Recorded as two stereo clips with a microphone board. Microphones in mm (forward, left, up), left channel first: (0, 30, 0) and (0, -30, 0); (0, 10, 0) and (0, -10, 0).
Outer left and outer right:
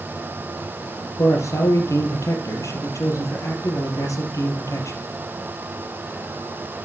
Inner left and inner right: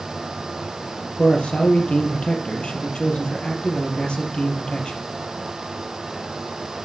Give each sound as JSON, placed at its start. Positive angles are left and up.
{"t": 1.2, "sound": "a man speaking", "side_deg": 70, "distance_m": 3.5}